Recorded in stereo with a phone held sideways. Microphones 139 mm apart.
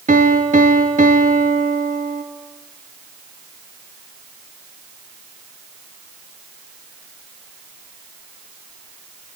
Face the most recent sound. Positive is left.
turn(degrees=-65)  # may be behind; listen again after turning